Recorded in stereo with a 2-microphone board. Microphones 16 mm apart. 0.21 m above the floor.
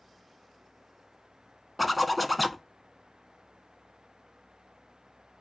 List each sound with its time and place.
1.8 s a zipper: 10° right (ahead or behind), 0.7 m